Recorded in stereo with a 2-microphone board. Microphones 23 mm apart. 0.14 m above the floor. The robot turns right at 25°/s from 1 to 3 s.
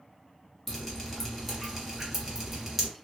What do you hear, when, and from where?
0.7 s dripping: centre (ahead or behind), 1.4 m; by 2.9 s 15° right (ahead or behind), 1.4 m